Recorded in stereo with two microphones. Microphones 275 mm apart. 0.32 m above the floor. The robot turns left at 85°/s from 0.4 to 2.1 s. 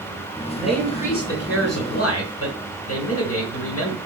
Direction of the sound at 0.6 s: 170° right.